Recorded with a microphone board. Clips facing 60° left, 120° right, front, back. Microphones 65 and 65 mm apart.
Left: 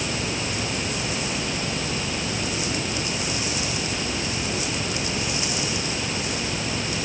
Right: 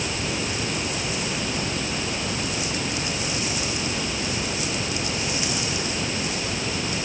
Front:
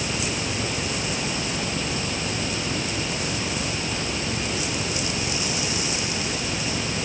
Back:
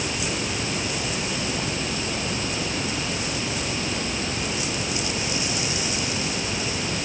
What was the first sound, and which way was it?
Only background noise.